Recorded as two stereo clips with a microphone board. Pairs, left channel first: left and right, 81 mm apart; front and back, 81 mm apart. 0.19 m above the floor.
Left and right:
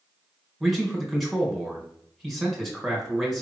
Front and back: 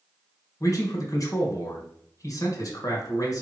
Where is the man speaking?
Straight ahead, 1.5 m.